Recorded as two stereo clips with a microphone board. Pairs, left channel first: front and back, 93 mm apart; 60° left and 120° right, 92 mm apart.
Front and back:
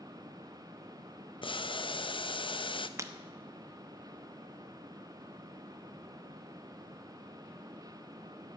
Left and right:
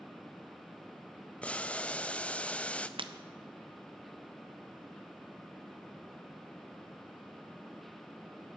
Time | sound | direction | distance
1.4 | boiling | 15° right | 0.6 m
3.0 | breaking glass | 125° right | 0.8 m